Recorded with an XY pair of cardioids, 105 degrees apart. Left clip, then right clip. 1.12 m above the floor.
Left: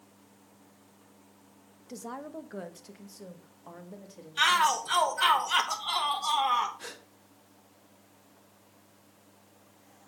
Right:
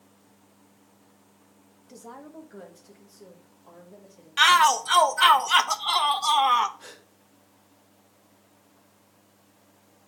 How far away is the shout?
About 0.8 m.